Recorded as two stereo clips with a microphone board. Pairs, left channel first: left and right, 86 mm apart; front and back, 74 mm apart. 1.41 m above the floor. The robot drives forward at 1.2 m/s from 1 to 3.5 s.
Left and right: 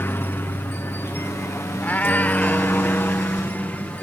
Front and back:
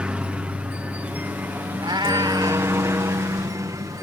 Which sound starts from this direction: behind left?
A helicopter, at 0.0 s.